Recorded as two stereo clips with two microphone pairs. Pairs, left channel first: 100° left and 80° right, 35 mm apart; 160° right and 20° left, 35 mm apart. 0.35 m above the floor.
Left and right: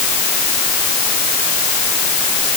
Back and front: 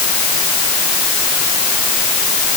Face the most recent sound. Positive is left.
No sound to turn to.